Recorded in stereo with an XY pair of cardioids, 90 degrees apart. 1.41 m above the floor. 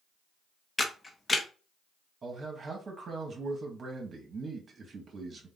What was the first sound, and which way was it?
A camera shutter, 25° left.